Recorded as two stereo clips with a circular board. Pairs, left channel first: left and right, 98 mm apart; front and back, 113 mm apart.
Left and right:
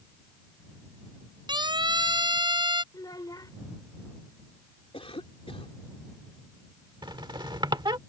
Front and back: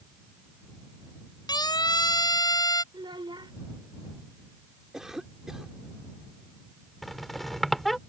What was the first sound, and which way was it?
A siren, 55° right.